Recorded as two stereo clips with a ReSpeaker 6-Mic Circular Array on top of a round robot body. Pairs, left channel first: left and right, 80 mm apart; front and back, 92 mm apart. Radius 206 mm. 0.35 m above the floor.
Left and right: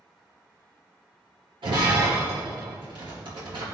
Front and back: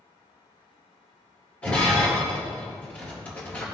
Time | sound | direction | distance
1.6 | breaking glass | 75° right | 4 m